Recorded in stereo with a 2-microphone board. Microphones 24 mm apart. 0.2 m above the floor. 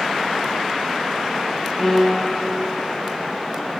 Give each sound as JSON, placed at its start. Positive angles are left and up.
{"t": 1.8, "sound": "a piano", "side_deg": 15, "distance_m": 4.0}